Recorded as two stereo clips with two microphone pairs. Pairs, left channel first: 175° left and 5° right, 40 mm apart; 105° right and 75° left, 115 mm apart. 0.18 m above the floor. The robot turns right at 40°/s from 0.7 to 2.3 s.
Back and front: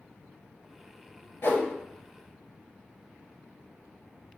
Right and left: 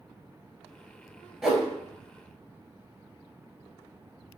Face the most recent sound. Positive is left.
turn(degrees=-160)